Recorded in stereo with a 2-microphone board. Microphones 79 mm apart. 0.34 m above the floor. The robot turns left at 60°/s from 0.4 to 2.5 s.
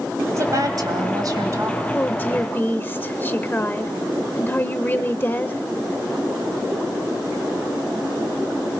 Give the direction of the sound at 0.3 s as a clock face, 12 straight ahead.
2 o'clock.